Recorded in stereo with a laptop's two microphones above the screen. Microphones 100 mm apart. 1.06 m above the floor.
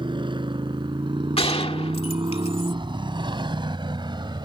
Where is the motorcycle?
55° right (ahead or behind).